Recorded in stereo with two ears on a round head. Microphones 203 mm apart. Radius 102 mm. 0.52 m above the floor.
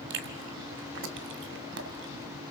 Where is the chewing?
55° right (ahead or behind), 1.6 m.